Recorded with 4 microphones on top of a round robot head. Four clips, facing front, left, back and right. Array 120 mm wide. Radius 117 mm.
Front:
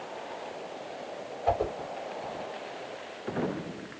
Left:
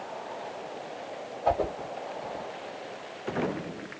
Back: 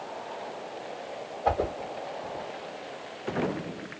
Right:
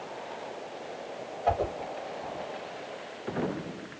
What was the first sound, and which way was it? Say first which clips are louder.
A whoosh: left 1 dB, back 1 dB; 155° left.